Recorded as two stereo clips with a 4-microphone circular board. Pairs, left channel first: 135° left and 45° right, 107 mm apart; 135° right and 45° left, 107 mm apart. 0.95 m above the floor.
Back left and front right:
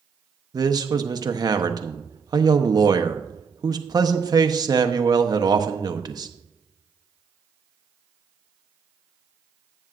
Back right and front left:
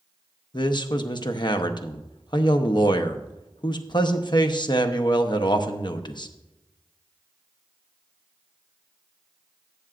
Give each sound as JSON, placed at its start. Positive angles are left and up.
{"t": 0.5, "sound": "a man speaking", "azimuth_deg": -95, "distance_m": 0.9}